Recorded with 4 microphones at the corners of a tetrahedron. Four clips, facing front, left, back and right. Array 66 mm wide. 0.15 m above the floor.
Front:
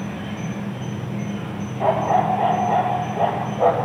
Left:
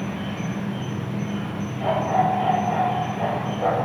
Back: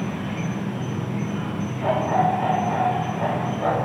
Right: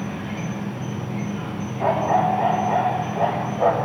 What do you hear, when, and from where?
0.0 s an insect: 160° right, 0.7 m
1.8 s a dog barking: 25° right, 1.0 m